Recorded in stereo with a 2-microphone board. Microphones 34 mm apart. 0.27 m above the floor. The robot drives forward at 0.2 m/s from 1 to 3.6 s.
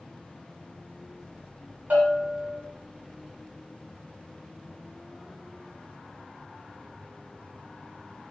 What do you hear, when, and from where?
1.9 s a bell: 70° right (ahead or behind), 1.2 m; by 2.6 s 65° right (ahead or behind), 1.2 m